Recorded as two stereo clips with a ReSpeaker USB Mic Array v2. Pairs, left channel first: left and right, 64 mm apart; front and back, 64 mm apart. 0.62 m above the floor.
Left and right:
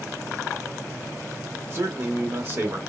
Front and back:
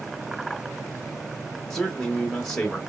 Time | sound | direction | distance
1.7 | a man speaking | 80° right | 1.0 m